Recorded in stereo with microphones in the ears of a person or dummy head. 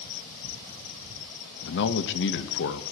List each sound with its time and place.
1.6 s a man speaking: 65° left (ahead or behind), 1.1 m